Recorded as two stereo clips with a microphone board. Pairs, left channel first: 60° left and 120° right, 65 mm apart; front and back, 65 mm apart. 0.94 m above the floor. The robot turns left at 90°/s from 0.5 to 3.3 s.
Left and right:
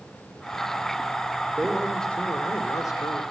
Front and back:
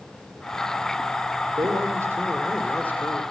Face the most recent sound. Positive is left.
turn(degrees=25)